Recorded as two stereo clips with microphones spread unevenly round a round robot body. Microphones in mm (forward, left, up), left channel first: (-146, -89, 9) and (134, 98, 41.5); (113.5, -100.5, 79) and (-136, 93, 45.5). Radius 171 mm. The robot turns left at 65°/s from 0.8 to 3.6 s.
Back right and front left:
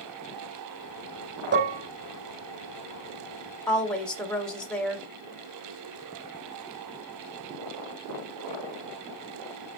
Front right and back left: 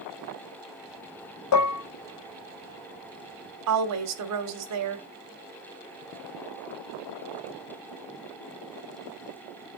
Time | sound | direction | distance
1.5 | dishes clattering | 20° right | 0.7 m
3.7 | a woman speaking | 130° left | 1.5 m